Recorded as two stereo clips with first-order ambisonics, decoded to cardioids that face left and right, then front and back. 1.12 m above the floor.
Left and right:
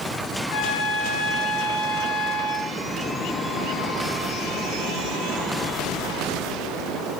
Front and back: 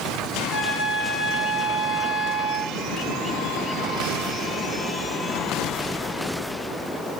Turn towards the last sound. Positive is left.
turn(degrees=85)